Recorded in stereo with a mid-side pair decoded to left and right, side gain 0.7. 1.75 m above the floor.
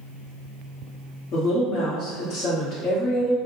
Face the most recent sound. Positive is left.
turn(degrees=50)